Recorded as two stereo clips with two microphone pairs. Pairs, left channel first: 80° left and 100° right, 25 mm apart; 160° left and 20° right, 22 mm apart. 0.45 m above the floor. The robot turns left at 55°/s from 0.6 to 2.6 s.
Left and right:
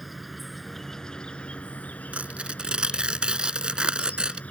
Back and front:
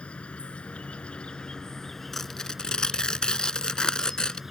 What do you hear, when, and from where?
0.0 s an insect: 165° left; by 4.5 s 55° left
2.1 s tearing paper: 125° right; by 4.4 s 150° right